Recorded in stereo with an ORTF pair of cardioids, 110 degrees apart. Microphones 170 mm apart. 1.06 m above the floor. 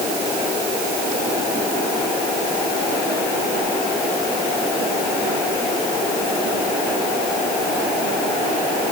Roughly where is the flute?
I don't hear a flute.